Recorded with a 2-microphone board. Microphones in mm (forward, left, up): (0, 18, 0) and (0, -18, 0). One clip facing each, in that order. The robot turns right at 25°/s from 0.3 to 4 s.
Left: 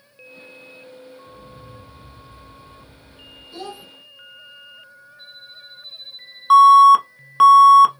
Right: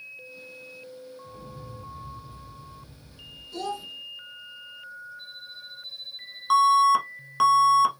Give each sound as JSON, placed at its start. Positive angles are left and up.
{"t": 1.2, "sound": "an explosion", "azimuth_deg": -110, "distance_m": 2.0}
{"t": 3.5, "sound": "a child speaking", "side_deg": 20, "distance_m": 0.8}
{"t": 6.5, "sound": "an alarm", "side_deg": 25, "distance_m": 0.8}